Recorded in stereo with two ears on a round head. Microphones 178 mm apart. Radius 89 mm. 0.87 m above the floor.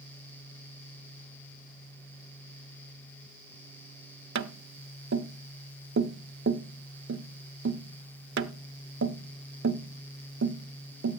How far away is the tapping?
About 0.8 m.